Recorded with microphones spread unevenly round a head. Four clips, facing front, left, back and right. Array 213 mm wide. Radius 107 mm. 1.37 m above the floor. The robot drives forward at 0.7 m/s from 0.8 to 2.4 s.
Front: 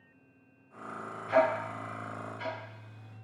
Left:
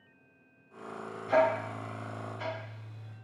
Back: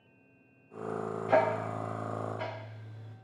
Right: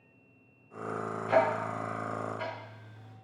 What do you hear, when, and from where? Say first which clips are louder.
1.3 s ticking: left 1 dB, front 1 dB; 170° right, 1.6 m; by 3.1 s 175° right, 2.5 m